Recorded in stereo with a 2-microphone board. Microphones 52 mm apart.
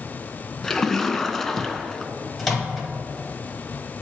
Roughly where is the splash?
Centre.